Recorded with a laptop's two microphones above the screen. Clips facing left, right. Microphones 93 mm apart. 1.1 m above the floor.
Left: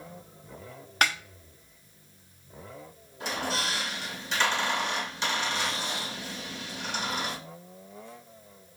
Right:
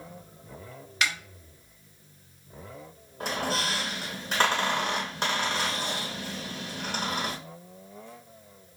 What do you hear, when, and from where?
1.0 s a snare drum: 50° left (ahead or behind), 0.8 m
3.2 s a squeak: 50° right (ahead or behind), 2 m